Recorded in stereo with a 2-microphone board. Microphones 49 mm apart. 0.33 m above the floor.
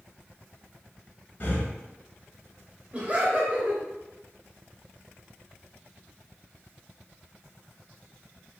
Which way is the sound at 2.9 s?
25° right (ahead or behind).